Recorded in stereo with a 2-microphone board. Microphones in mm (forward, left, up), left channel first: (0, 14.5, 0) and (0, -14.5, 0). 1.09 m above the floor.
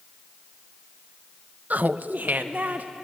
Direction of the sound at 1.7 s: 60° right (ahead or behind).